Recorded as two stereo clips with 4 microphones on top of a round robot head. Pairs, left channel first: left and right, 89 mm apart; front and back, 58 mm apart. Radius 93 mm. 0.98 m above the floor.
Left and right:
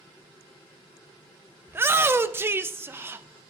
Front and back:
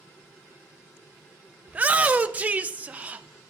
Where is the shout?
135° right, 0.6 m.